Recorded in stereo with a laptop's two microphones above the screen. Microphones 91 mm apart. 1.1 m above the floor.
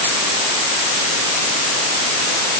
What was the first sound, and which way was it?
Only background noise.